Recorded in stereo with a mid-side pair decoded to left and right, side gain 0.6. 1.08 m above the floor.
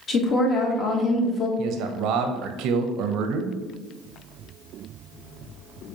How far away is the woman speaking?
About 1.1 m.